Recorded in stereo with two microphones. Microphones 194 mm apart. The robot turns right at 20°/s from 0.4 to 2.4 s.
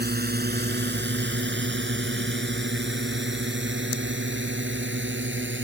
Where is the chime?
I don't hear a chime.